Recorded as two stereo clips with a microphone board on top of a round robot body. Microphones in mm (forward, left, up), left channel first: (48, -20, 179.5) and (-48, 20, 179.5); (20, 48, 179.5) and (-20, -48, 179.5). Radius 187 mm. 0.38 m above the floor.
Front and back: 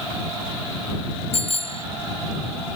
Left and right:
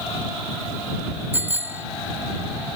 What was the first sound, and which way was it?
A bicycle bell, 40° right.